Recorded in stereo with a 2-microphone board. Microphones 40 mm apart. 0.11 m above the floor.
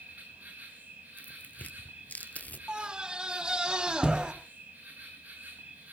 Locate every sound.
0.0 s an insect: 40° right (ahead or behind), 7 m
1.2 s tearing paper: 45° left (ahead or behind), 1.0 m
2.7 s a scream: 20° right (ahead or behind), 3 m